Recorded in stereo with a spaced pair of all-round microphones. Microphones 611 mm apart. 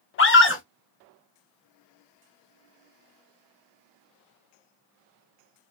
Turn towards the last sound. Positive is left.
turn(degrees=20)  # may be behind; listen again after turning